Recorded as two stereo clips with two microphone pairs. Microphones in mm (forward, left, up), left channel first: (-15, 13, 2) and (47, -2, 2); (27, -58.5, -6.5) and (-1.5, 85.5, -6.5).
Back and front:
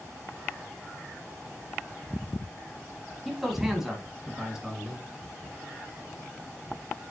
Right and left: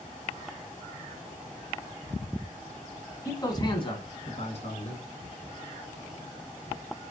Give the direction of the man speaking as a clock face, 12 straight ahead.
3 o'clock.